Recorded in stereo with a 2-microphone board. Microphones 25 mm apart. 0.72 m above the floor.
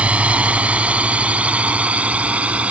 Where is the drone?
65° right (ahead or behind); by 2.7 s 70° right (ahead or behind).